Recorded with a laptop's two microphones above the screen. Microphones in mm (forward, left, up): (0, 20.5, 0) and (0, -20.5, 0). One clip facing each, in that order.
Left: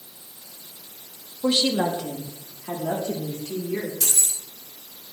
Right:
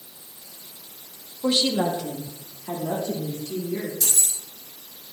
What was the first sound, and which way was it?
A woman speaking, 15° left (ahead or behind).